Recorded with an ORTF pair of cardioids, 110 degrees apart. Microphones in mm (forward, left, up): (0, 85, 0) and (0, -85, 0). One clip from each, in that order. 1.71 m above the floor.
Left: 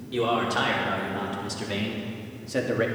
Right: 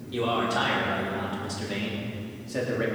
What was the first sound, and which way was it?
A man speaking, 15° left.